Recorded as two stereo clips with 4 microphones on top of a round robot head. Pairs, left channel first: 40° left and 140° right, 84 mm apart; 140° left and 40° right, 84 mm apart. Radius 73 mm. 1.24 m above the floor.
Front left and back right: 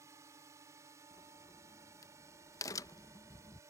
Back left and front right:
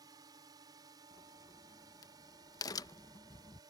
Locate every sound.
0.0 s a drone: 85° right
1.1 s a crack: 90° left